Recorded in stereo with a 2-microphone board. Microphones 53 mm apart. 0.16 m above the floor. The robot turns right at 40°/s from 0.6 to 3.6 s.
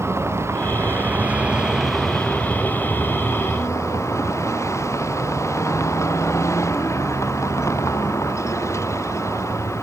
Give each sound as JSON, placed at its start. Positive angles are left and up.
{"t": 0.0, "sound": "a vehicle", "azimuth_deg": -55}